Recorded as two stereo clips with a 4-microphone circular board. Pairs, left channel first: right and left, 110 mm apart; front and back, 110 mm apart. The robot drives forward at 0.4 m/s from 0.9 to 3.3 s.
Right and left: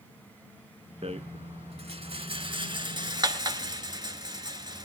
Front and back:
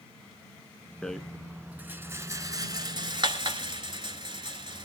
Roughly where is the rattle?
Left.